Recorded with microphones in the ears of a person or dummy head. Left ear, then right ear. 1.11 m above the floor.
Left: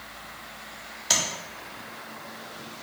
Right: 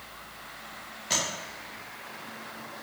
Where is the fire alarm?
No fire alarm in this recording.